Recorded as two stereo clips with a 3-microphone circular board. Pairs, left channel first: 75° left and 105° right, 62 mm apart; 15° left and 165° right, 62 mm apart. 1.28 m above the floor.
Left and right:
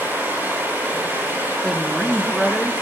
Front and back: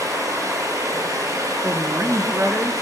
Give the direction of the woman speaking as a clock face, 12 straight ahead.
7 o'clock.